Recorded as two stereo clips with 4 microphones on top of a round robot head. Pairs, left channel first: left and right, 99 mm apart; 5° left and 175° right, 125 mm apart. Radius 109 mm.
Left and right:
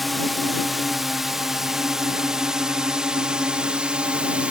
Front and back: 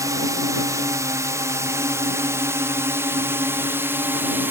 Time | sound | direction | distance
0.0 | a drone | straight behind | ?